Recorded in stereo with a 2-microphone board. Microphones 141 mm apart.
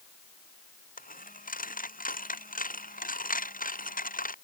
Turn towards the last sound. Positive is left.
turn(degrees=70)  # may be behind; listen again after turning